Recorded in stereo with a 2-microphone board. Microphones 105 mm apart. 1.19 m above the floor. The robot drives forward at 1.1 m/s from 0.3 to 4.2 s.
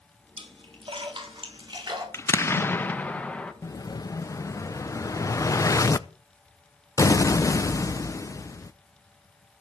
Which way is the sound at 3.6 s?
30° left (ahead or behind).